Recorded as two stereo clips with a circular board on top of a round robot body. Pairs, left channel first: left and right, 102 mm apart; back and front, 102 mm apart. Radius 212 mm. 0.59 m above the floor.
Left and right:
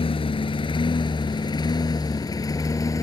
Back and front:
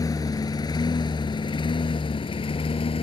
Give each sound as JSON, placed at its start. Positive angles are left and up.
{"t": 0.0, "sound": "a lawn mower", "azimuth_deg": 125}